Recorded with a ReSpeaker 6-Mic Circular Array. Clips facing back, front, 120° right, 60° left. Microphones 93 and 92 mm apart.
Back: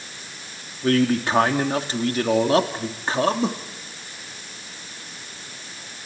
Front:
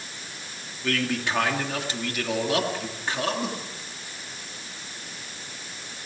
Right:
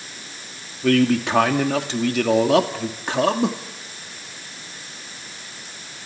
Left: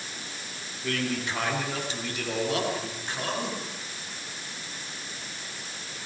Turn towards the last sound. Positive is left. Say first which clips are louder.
# back 8 dB, right 13 dB
turn(degrees=-125)